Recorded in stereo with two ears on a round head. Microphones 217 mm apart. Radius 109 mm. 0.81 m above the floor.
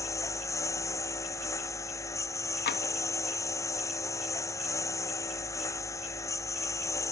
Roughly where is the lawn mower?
Centre.